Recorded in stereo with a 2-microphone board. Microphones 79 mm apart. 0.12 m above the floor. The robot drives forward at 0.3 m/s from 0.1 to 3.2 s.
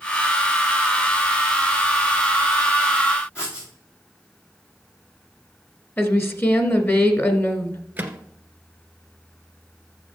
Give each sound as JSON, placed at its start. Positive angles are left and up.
{"t": 3.4, "sound": "writing", "side_deg": 30, "distance_m": 4.0}
{"t": 6.0, "sound": "a woman speaking", "side_deg": 35, "distance_m": 1.5}
{"t": 8.0, "sound": "a microwave", "side_deg": -20, "distance_m": 1.4}